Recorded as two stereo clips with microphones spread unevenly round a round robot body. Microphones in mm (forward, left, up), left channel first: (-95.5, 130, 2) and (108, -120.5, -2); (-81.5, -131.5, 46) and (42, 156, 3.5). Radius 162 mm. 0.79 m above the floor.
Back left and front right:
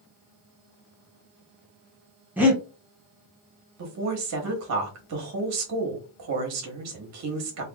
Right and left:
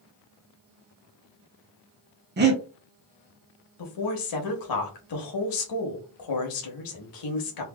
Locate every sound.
2.4 s breathing: 30° left, 0.9 m
3.8 s a woman speaking: 90° right, 1.3 m